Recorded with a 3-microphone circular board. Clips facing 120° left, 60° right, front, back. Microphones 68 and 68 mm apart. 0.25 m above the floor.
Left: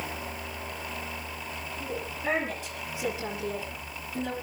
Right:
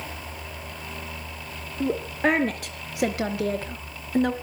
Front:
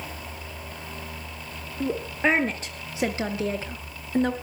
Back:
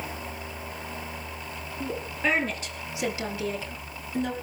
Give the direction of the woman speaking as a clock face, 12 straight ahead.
2 o'clock.